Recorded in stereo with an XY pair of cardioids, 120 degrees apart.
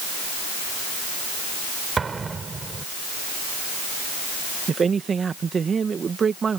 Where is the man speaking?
35° right.